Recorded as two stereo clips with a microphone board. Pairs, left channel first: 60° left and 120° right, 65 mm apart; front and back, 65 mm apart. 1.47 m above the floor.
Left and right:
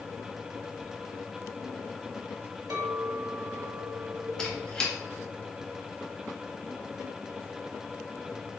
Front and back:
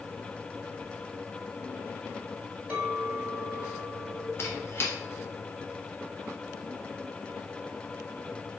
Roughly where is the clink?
Behind right.